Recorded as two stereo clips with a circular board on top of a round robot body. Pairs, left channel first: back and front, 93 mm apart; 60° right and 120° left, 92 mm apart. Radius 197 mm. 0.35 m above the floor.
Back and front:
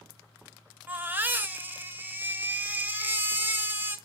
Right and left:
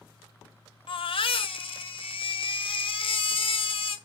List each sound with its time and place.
0.9 s a baby crying: 70° right, 1.7 m